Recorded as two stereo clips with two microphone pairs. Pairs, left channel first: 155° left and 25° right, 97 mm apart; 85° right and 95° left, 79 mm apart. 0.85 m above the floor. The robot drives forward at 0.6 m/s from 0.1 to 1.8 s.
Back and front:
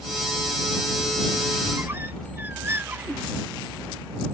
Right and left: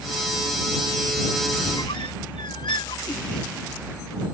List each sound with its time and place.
1.6 s a squeak: 85° right; by 3.3 s 90° right